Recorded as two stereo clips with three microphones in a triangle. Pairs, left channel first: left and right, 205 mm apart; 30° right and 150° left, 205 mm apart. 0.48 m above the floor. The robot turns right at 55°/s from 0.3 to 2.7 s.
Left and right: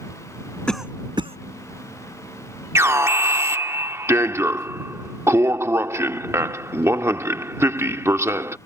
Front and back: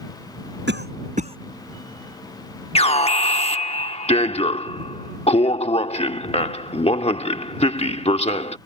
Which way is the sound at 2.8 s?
25° right.